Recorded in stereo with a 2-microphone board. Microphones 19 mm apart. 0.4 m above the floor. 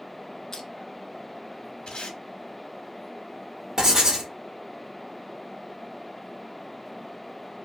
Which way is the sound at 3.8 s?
40° right (ahead or behind).